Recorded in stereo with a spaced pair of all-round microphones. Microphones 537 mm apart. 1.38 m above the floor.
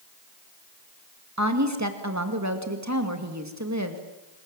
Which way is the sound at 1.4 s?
30° right (ahead or behind).